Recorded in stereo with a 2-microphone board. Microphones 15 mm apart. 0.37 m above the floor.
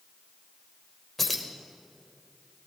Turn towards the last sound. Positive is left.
turn(degrees=5)  # may be behind; listen again after turning